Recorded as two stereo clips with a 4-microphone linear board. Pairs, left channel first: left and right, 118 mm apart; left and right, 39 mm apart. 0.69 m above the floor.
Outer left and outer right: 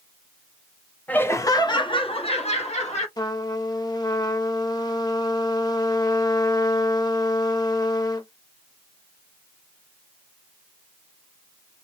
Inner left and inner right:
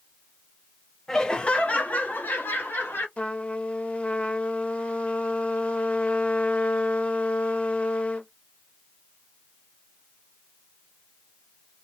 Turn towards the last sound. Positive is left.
turn(degrees=35)  # may be behind; listen again after turning